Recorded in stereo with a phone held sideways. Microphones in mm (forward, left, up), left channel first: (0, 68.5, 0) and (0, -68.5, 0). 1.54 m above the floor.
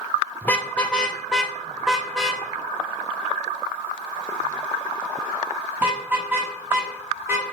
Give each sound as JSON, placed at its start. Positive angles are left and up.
{"t": 0.4, "sound": "a car horn", "side_deg": 15, "distance_m": 2.0}